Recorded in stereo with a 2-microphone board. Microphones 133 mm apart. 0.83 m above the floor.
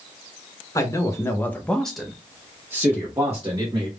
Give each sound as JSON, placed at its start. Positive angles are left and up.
{"t": 0.8, "sound": "a man speaking", "side_deg": 25, "distance_m": 0.8}